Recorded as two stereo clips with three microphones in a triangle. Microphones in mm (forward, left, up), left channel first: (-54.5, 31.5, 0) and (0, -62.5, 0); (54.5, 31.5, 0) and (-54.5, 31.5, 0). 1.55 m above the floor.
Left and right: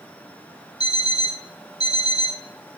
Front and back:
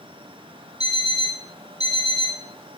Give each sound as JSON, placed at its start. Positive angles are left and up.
{"t": 0.8, "sound": "an alarm clock", "azimuth_deg": 170, "distance_m": 5.0}